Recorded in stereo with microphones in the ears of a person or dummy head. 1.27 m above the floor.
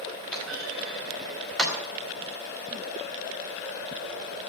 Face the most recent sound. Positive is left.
turn(degrees=-5)  # may be behind; listen again after turning